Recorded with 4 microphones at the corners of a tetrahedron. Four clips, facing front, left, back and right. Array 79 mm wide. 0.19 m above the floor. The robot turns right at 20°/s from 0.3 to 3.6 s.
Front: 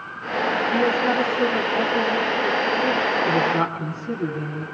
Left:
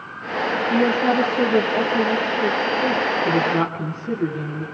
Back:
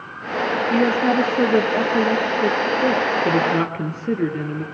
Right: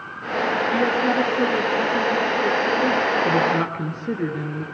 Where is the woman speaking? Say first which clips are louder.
Left 4 dB, back 4 dB; 140° left, 4 m; by 4.6 s 160° right, 4 m.